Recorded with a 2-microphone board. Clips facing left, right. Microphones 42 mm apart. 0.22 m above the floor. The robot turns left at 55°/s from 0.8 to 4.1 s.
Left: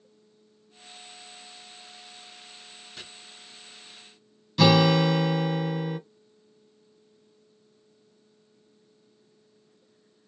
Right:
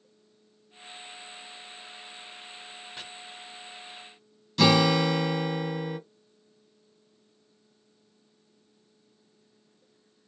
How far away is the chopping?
About 1.2 m.